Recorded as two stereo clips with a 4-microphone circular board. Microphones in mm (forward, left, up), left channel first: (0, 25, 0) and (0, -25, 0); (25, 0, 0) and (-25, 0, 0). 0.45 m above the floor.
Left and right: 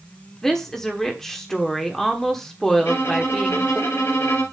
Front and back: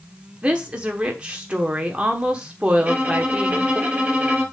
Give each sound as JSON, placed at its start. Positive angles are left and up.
{"t": 0.4, "sound": "a woman speaking", "azimuth_deg": 155, "distance_m": 1.1}
{"t": 2.8, "sound": "a violin", "azimuth_deg": 110, "distance_m": 3.0}